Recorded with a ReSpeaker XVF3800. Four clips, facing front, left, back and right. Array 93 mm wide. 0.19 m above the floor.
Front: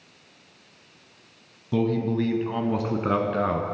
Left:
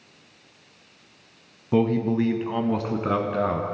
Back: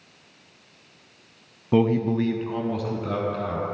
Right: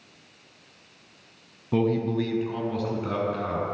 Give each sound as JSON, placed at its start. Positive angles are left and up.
{"t": 1.7, "sound": "a man speaking", "azimuth_deg": 165, "distance_m": 1.5}